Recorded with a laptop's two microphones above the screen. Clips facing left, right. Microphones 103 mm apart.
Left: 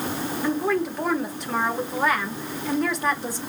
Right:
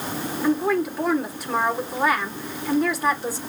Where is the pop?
No pop in this recording.